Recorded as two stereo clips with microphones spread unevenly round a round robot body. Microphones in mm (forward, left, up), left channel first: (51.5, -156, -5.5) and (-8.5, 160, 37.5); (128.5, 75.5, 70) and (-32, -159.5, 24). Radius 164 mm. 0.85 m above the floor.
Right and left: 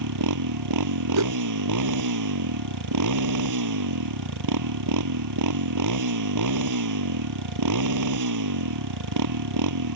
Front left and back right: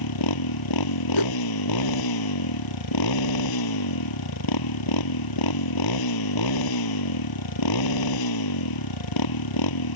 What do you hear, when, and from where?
0.0 s a motorcycle: 70° left
1.1 s a whoosh: 60° left